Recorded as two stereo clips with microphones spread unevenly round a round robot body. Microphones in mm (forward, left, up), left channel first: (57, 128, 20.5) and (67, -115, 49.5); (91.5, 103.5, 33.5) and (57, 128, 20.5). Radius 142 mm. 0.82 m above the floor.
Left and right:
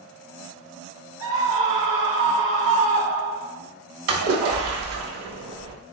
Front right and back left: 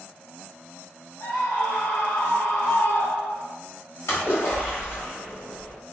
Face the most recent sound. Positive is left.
turn(degrees=-75)